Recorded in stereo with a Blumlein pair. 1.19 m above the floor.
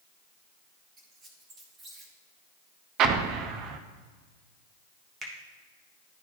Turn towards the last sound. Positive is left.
turn(degrees=-10)